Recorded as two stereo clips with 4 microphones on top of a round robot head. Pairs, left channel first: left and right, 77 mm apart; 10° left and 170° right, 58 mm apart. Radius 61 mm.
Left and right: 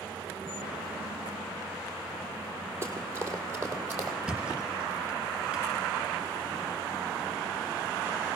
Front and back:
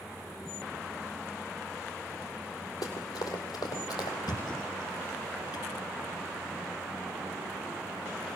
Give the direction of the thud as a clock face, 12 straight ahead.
1 o'clock.